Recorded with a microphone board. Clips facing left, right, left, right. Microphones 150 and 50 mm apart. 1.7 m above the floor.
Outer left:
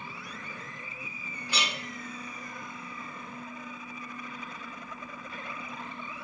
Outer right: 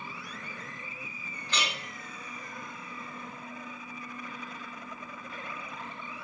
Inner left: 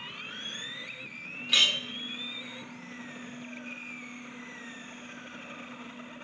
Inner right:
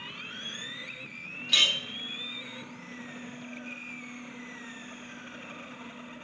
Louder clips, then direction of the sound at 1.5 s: Even, even; 10° left (ahead or behind).